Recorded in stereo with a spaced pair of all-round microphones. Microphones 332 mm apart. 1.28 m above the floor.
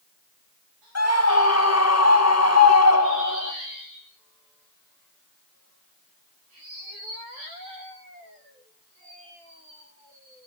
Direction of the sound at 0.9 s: 50° left (ahead or behind).